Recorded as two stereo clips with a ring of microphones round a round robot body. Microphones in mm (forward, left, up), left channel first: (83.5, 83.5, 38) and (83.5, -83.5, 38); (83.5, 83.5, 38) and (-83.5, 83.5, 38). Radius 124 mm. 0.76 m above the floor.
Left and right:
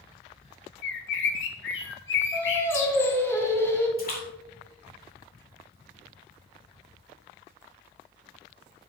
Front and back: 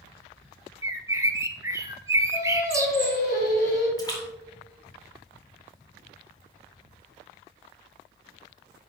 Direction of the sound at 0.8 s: 110° left.